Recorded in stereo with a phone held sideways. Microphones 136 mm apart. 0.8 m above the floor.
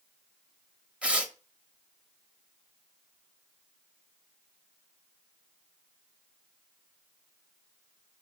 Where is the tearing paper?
10° right (ahead or behind), 0.6 m.